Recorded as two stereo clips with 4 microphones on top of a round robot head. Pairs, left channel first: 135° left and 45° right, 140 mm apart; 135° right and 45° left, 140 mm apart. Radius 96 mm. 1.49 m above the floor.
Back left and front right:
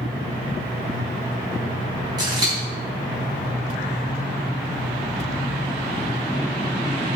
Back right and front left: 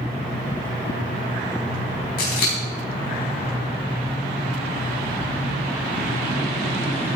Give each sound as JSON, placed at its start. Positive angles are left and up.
{"t": 2.2, "sound": "scissors", "azimuth_deg": -110, "distance_m": 4.5}